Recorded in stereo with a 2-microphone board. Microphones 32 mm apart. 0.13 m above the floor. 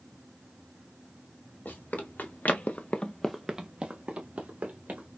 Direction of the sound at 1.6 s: 90° left.